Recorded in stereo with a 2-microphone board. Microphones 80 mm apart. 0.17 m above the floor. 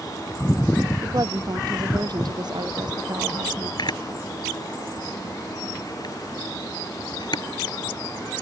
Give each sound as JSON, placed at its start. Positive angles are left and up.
{"t": 1.0, "sound": "a woman speaking", "side_deg": -50}
{"t": 3.8, "sound": "a camera shutter", "side_deg": 65}